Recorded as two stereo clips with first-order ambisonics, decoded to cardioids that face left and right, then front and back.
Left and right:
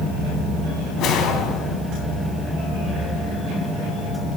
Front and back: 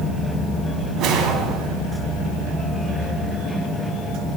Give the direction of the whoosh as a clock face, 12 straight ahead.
7 o'clock.